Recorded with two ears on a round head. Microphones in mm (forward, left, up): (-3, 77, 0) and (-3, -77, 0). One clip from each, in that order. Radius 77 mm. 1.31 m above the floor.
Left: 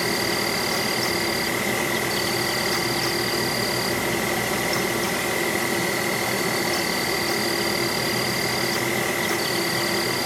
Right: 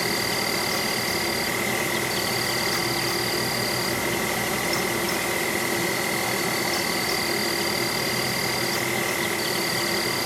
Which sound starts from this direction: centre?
An insect, at 0.0 s.